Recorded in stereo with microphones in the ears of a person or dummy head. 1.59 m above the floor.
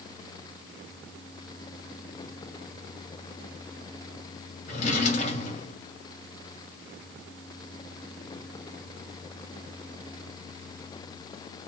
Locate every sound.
4.7 s a drawer: 45° left (ahead or behind), 1.4 m